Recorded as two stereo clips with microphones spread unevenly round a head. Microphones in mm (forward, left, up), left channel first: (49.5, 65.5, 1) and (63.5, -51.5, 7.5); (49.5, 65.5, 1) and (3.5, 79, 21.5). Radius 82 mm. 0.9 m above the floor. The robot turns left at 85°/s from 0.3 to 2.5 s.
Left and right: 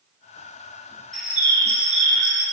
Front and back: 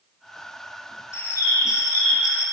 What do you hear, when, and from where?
1.1 s a bird: 10° left, 1.8 m; by 2.4 s 100° right, 1.8 m